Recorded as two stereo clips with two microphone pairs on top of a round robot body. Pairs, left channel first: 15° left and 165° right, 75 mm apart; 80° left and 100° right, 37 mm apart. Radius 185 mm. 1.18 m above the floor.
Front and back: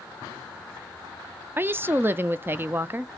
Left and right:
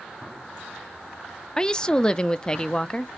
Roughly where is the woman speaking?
Behind left.